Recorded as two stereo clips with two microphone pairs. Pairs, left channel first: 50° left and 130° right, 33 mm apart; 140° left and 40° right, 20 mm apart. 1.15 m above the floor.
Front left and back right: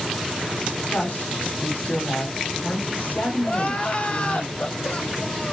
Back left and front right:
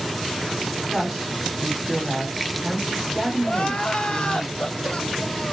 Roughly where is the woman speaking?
Ahead left.